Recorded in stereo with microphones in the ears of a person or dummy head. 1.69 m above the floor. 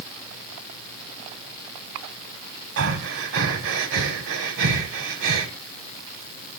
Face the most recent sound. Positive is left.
turn(degrees=-65)  # may be behind; listen again after turning